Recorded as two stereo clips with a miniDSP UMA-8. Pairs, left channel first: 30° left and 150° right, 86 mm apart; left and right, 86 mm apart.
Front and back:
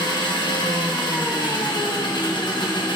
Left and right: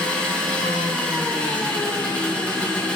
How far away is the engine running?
About 1.1 m.